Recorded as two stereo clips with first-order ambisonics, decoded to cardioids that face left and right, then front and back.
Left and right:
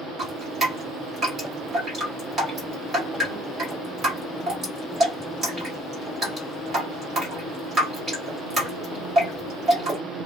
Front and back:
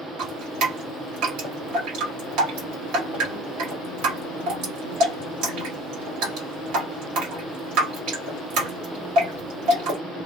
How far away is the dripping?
About 2.0 m.